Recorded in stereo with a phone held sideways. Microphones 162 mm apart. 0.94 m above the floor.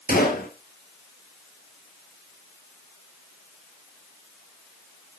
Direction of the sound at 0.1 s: 70° left (ahead or behind).